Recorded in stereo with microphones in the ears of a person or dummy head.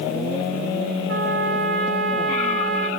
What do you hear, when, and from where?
1.1 s a trumpet: 50° right (ahead or behind), 1.9 m